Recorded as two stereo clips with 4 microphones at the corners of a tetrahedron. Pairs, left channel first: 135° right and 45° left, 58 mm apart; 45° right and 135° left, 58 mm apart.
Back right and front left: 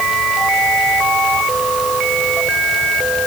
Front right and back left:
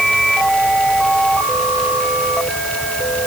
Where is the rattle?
No rattle in this recording.